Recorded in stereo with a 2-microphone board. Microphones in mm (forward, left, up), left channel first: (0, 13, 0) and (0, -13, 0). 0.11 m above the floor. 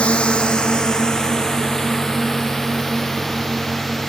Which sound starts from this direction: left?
A drone, at 0.0 s.